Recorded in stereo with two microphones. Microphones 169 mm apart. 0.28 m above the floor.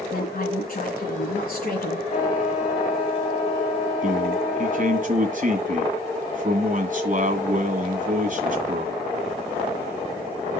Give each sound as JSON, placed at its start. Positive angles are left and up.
{"t": 0.1, "sound": "a woman speaking", "side_deg": 60, "distance_m": 3.5}
{"t": 2.1, "sound": "a trumpet", "side_deg": 50, "distance_m": 4.0}
{"t": 4.0, "sound": "a man speaking", "side_deg": -50, "distance_m": 1.8}